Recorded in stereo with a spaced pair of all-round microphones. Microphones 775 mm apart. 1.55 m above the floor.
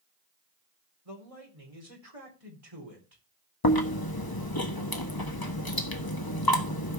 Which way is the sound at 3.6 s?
30° left (ahead or behind).